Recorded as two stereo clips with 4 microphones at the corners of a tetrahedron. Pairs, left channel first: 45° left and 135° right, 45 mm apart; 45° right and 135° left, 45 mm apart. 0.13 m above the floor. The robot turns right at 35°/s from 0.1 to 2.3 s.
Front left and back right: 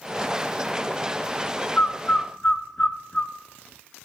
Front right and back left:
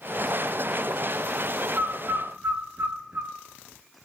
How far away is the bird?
About 0.8 m.